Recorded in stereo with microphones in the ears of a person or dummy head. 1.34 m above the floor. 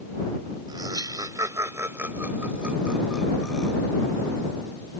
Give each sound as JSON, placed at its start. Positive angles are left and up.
{"t": 0.7, "sound": "laughter", "side_deg": -20}